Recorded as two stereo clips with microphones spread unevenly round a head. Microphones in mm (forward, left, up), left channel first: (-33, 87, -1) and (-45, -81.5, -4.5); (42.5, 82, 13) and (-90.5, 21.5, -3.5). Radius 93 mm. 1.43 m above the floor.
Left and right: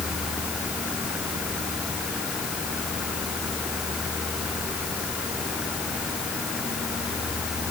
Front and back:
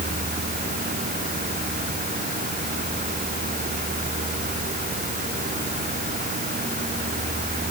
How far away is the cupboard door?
No cupboard door in this recording.